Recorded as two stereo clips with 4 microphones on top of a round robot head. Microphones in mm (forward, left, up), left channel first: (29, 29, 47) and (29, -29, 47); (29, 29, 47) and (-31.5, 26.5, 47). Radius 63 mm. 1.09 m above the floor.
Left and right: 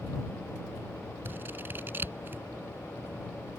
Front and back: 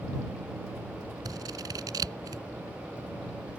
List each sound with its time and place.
1.2 s scissors: 150° right